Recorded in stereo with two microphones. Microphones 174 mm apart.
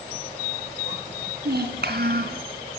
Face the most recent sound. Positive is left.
turn(degrees=-70)  # may be behind; listen again after turning